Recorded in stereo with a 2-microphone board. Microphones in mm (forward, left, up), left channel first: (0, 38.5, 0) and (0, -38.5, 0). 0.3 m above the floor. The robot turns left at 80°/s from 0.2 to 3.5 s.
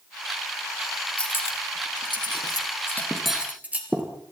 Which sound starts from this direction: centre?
Cutlery clinking, at 1.2 s.